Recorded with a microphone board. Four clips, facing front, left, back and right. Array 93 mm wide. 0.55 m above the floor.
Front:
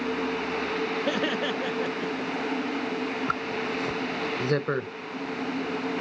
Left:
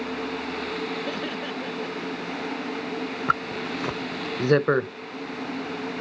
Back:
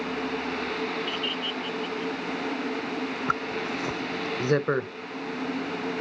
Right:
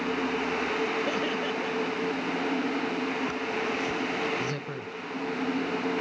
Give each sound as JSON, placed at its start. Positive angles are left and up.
{"t": 1.1, "sound": "laughter", "azimuth_deg": -5}
{"t": 3.3, "sound": "a zipper", "azimuth_deg": 100}